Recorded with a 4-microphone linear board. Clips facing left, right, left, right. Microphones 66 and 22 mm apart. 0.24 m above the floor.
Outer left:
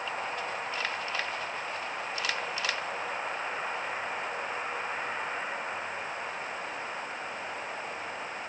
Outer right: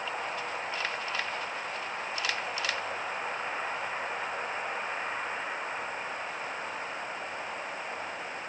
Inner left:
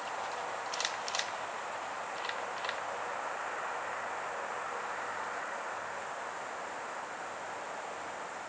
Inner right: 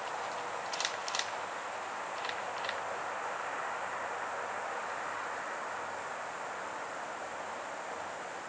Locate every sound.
Only background noise.